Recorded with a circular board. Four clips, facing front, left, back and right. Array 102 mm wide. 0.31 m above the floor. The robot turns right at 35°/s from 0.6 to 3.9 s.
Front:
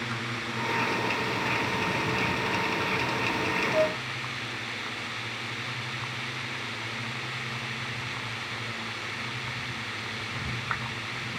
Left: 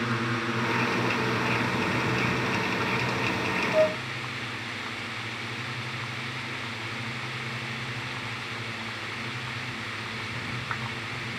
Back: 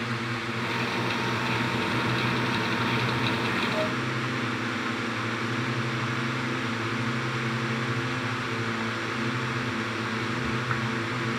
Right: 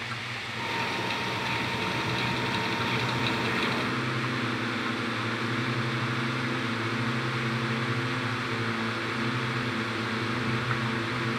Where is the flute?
70° left; by 4.0 s 75° left.